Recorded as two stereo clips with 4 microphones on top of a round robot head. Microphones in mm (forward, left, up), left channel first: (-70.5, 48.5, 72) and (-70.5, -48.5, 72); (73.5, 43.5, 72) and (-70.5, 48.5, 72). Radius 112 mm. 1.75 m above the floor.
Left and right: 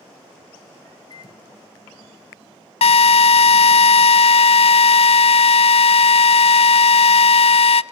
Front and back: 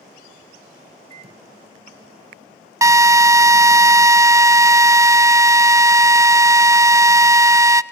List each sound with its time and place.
1.1 s a microwave: 135° left, 1.2 m
2.8 s a drill: 110° left, 0.6 m